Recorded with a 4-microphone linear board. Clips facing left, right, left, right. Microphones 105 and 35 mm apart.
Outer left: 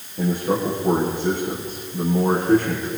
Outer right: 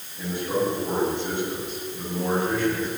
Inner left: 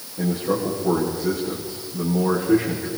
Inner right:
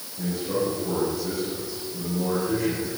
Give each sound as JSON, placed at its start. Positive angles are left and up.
{"t": 0.2, "sound": "a man speaking", "side_deg": 45, "distance_m": 7.0}